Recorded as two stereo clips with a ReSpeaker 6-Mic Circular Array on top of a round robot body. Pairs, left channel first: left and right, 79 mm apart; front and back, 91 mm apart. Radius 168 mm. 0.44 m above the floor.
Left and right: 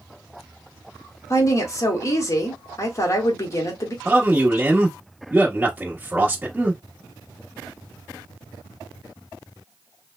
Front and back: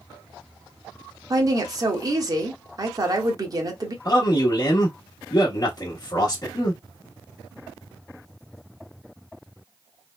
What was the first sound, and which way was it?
A woman speaking, 135° left.